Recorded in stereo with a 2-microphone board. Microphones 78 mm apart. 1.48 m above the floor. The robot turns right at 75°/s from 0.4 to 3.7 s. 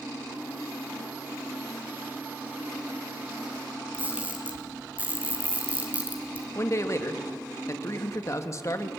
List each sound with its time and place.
3.9 s a camera shutter: 20° right (ahead or behind), 3.5 m
6.5 s a man speaking: 40° left (ahead or behind), 2 m